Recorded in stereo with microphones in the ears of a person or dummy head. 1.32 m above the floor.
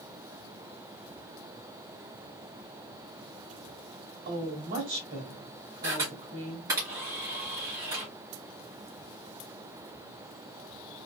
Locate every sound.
4.2 s a woman speaking: 35° right (ahead or behind), 1.7 m
5.8 s a camera shutter: 15° right (ahead or behind), 2.5 m